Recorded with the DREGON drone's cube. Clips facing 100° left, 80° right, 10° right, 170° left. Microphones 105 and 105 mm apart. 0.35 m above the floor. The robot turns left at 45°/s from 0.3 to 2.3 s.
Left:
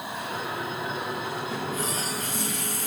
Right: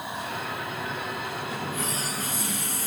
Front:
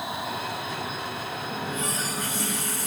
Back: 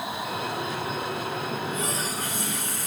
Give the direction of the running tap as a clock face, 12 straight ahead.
6 o'clock.